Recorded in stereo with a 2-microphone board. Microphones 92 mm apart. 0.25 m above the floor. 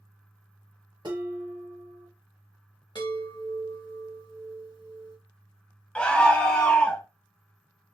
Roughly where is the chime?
Left.